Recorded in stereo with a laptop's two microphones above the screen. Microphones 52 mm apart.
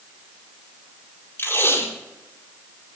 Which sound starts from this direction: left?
Tape being pulled, at 1.4 s.